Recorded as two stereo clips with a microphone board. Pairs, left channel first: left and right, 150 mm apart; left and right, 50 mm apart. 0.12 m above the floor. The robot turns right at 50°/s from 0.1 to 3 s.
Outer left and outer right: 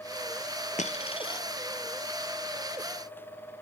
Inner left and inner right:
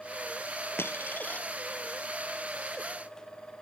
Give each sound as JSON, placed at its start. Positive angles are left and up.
{"t": 0.8, "sound": "a dropped coin", "azimuth_deg": 120, "distance_m": 1.4}